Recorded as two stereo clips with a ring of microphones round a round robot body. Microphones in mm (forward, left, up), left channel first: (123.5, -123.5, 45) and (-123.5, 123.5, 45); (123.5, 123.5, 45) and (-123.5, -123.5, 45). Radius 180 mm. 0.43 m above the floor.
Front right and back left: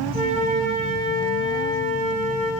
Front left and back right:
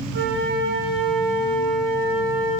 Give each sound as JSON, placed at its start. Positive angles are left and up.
{"t": 0.1, "sound": "a flute", "azimuth_deg": -170, "distance_m": 1.6}